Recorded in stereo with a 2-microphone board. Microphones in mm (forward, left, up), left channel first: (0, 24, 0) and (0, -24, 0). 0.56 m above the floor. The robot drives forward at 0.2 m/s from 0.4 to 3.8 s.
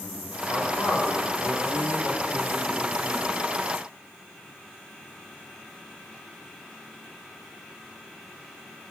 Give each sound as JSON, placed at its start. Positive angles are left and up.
{"t": 0.5, "sound": "a man speaking", "side_deg": 60, "distance_m": 1.8}